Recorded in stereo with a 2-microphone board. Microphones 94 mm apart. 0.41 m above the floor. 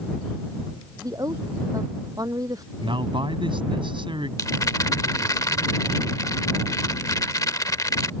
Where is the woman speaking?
40° right (ahead or behind).